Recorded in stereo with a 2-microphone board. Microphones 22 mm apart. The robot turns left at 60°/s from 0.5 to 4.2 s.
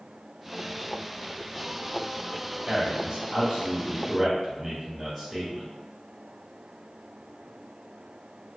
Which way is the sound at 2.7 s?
30° right (ahead or behind).